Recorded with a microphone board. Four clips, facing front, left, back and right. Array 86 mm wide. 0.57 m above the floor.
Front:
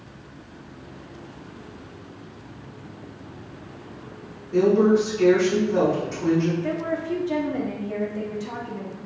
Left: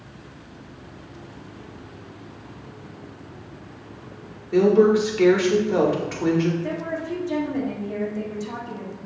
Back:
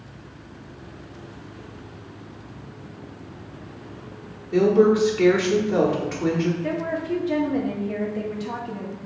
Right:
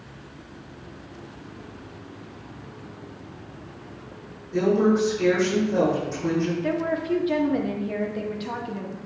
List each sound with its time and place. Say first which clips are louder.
4.5 s a woman speaking: left 4 dB, back 1 dB; 120° left, 1.5 m
6.6 s a woman speaking: right 3 dB, even; 110° right, 0.8 m